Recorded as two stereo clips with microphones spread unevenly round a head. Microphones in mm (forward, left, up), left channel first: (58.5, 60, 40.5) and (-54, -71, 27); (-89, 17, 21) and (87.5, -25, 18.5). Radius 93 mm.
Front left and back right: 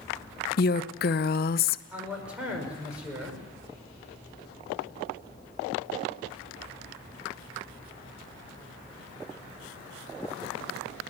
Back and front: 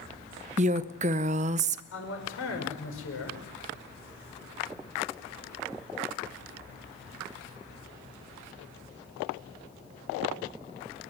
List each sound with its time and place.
0.6 s a woman speaking: 35° left, 0.6 m
1.9 s a man speaking: 145° left, 5.5 m